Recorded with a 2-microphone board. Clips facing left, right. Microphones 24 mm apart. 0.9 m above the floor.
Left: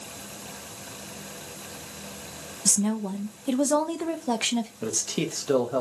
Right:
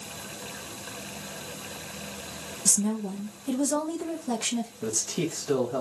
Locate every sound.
2.6 s a woman speaking: 35° left (ahead or behind), 0.5 m
4.8 s a man speaking: 45° left (ahead or behind), 0.7 m